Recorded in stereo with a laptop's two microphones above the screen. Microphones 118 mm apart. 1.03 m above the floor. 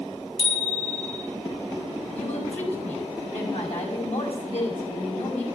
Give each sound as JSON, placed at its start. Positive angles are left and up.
{"t": 0.4, "sound": "a bicycle bell", "side_deg": 45, "distance_m": 5.5}
{"t": 2.1, "sound": "a woman speaking", "side_deg": 65, "distance_m": 6.0}